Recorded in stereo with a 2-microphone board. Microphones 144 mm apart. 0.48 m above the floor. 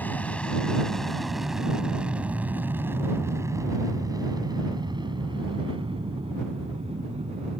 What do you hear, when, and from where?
0.0 s an aircraft: 10° left (ahead or behind); by 7.6 s 45° right (ahead or behind)